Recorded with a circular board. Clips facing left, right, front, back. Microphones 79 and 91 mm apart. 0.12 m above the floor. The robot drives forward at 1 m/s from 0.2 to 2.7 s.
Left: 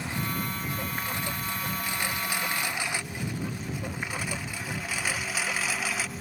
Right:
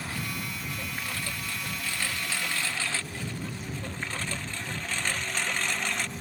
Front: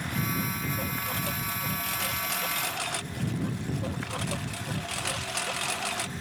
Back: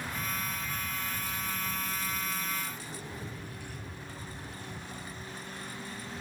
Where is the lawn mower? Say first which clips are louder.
Left 3 dB, front 5 dB; 20° left; by 6.2 s 5° left.